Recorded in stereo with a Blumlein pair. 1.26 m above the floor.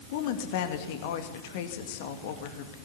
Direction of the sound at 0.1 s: 50° left.